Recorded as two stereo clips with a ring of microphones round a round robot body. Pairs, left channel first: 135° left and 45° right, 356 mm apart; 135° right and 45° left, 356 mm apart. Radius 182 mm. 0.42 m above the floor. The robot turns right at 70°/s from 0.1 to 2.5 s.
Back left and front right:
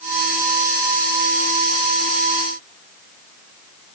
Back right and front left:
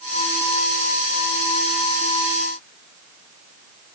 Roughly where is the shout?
No shout in this recording.